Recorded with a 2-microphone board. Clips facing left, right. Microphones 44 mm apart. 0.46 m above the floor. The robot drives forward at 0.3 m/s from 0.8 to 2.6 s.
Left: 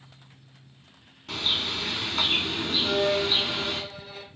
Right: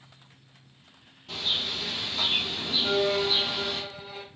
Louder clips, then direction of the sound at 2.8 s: Even; 25° right (ahead or behind).